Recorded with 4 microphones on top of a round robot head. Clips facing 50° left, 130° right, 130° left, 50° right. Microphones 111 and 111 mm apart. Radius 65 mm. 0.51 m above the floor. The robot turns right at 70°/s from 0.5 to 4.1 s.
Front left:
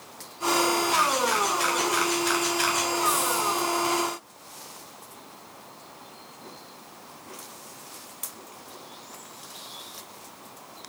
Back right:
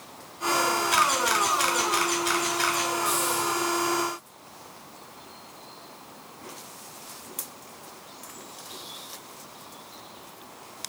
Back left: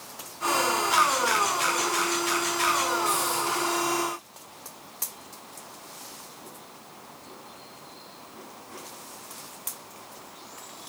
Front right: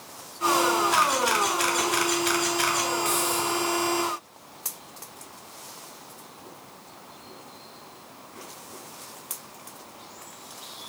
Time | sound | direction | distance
0.9 | a camera shutter | 145° right | 2.5 m
3.0 | a hiss | 35° right | 1.6 m